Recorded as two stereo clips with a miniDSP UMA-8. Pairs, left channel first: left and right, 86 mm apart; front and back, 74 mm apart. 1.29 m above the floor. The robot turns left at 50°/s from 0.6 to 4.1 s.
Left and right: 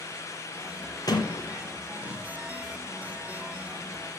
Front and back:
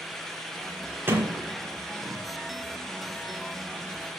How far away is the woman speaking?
No woman speaking in this recording.